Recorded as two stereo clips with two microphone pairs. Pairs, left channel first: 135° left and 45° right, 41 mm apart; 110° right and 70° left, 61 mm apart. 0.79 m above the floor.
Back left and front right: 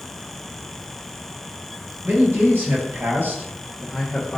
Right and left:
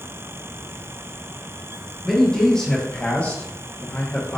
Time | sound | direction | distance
2.0 | a man speaking | 25° right | 1.6 m